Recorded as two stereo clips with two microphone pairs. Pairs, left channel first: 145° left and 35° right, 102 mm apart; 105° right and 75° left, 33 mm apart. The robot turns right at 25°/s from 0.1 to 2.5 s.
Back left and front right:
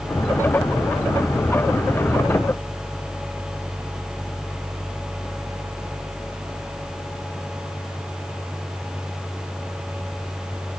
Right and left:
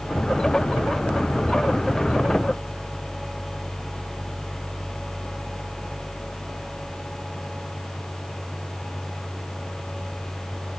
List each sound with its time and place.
Only background noise.